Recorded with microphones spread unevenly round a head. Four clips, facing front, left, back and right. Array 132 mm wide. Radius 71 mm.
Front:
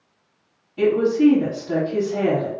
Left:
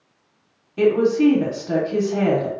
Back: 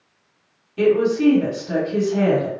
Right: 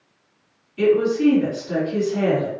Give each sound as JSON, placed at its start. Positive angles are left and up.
{"t": 0.8, "sound": "a woman speaking", "azimuth_deg": 90, "distance_m": 1.4}